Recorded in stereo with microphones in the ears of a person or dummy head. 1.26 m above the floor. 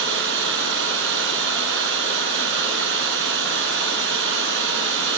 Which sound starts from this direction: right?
Running water, at 0.0 s.